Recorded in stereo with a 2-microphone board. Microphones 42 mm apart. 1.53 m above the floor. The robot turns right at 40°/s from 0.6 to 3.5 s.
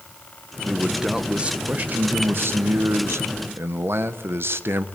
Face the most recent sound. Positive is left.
turn(degrees=-70)